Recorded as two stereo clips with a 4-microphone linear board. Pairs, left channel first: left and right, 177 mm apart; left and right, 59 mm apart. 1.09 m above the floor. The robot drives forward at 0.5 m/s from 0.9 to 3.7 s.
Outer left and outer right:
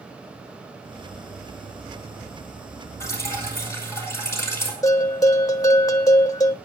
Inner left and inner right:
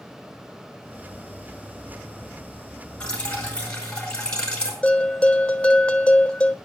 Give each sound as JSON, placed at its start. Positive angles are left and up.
{"t": 3.0, "sound": "dripping", "side_deg": 15, "distance_m": 4.5}
{"t": 4.8, "sound": "a bell", "side_deg": 20, "distance_m": 1.2}